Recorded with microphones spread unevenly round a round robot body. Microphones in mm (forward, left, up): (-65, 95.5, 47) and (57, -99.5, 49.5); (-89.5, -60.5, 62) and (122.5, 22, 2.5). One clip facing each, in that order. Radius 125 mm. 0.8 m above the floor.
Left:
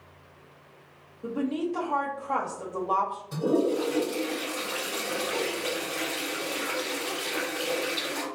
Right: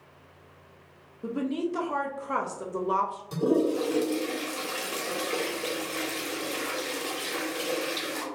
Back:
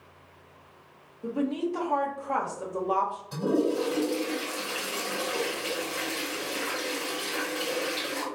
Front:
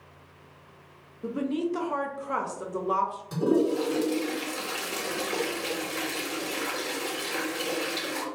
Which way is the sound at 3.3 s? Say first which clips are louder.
Right 1 dB, front 2 dB; 10° right.